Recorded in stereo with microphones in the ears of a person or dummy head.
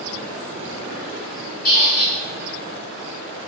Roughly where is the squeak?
Left.